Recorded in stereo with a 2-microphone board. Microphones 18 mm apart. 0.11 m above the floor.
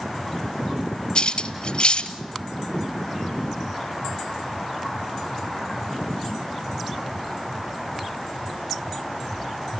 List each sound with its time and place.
1.1 s cutlery clinking: 55° left (ahead or behind), 1.2 m